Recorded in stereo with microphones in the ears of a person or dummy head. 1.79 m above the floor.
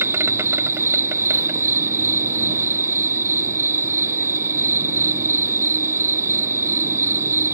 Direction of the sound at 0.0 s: 10° right (ahead or behind).